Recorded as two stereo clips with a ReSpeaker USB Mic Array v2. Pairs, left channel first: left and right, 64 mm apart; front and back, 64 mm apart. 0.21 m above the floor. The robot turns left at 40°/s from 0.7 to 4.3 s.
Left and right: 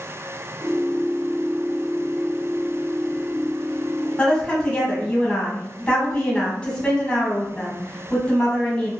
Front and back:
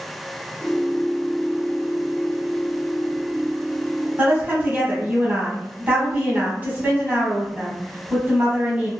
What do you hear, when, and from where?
4.2 s a woman speaking: 155° left, 1.3 m; by 8.9 s 150° left, 1.3 m